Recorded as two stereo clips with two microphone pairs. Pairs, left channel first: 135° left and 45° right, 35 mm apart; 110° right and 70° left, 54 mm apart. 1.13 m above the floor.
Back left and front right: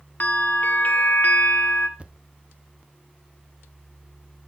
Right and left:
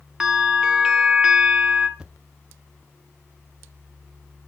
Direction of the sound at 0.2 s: 150° left.